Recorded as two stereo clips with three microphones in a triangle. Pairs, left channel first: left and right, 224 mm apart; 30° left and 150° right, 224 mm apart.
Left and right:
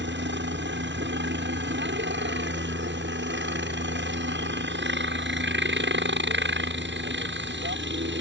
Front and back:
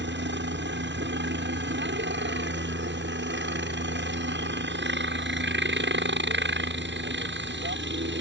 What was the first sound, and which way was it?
A helicopter, 120° right.